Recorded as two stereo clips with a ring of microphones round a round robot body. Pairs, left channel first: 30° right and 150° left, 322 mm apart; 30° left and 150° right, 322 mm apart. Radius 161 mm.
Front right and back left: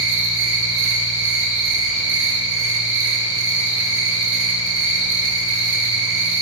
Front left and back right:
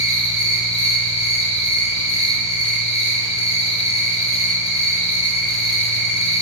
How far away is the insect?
About 3.5 m.